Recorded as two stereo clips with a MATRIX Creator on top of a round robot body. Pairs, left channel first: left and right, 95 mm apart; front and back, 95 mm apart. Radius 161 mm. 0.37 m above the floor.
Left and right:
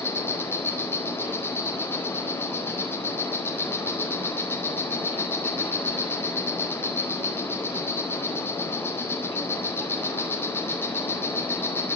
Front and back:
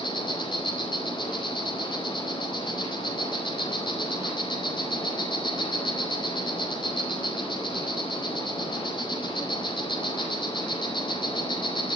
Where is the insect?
25° left, 4 m.